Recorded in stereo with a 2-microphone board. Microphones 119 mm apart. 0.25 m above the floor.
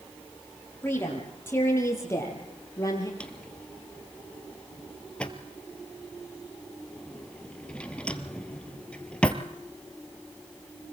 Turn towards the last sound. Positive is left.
turn(degrees=10)  # may be behind; listen again after turning